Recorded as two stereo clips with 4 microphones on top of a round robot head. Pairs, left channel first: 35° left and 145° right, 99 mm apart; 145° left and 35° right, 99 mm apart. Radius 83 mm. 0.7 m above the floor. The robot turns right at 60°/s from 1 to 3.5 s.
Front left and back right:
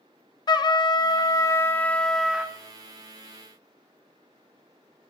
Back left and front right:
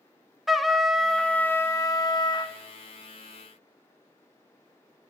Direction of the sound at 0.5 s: 55° left.